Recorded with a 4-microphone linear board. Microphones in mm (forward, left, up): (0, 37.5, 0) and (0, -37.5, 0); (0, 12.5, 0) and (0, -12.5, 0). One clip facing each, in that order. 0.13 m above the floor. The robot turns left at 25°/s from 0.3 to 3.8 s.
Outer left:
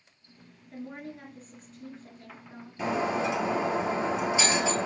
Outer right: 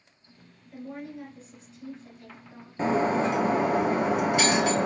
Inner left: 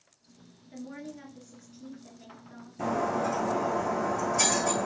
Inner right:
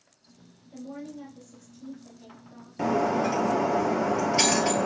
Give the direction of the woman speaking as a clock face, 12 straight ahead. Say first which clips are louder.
Outer right 2 dB, inner right 2 dB; 9 o'clock.